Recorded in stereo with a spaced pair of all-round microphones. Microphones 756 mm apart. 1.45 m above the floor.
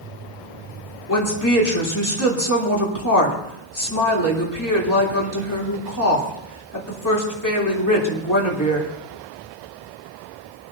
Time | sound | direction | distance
1.1 | a woman speaking | 25° left (ahead or behind) | 3 m